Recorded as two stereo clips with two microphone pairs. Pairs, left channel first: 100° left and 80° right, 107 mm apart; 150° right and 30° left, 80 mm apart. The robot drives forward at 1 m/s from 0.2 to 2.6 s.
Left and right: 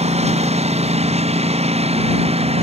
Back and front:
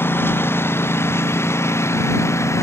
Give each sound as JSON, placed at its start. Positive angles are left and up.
{"t": 0.0, "sound": "a lawn mower", "azimuth_deg": -90}